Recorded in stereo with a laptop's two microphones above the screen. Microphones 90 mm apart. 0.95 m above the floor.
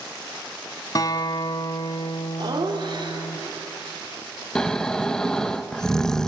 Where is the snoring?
5° left (ahead or behind), 1.1 m.